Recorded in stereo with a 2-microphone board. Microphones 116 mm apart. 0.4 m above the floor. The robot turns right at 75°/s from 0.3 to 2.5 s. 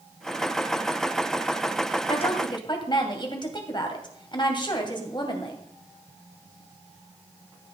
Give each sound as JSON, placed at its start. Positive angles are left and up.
{"t": 2.1, "sound": "a woman speaking", "azimuth_deg": 100, "distance_m": 2.5}